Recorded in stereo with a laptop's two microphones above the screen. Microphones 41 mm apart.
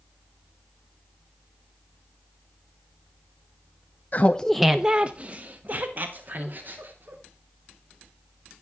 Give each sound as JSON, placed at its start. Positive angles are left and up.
{"t": 4.1, "sound": "laughter", "side_deg": 45, "distance_m": 0.6}